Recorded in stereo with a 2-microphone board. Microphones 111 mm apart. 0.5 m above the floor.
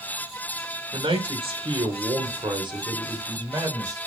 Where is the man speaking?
55° right (ahead or behind), 2 m; by 4.0 s 30° right (ahead or behind), 2.5 m.